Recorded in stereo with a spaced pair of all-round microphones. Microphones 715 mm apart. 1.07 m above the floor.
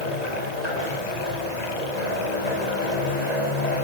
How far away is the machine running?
About 7 m.